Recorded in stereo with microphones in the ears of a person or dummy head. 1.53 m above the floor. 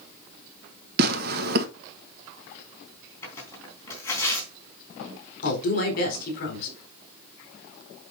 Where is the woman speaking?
55° left (ahead or behind), 4 m.